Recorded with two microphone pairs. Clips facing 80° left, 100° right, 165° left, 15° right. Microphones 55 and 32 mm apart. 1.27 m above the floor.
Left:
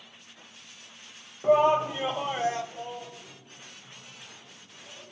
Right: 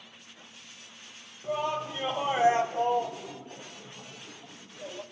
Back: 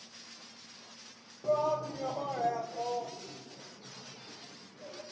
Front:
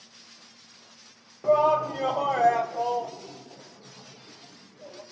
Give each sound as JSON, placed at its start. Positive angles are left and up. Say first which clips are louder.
{"t": 1.4, "sound": "a shout", "louder": "left 10 dB, front 9 dB", "azimuth_deg": 30, "distance_m": 0.7}